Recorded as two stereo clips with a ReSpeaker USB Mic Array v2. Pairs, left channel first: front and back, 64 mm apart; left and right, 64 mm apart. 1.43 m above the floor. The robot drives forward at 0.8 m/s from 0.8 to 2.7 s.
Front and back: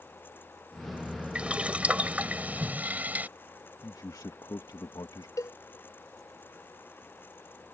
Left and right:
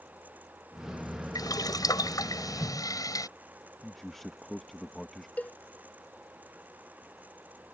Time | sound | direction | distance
1.4 | boiling | 105° left | ?
3.8 | a man speaking | 5° left | ?
5.4 | a cowbell | 25° left | ?